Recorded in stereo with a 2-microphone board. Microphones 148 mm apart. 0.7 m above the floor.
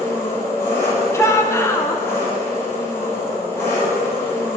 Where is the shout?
20° left (ahead or behind), 0.5 m.